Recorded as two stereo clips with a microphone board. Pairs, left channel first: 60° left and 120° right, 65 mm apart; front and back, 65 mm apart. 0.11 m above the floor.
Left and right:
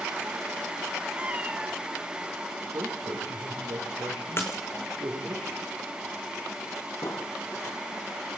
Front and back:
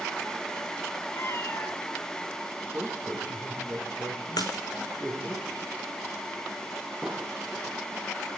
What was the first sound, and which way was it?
A cat meowing, 50° right.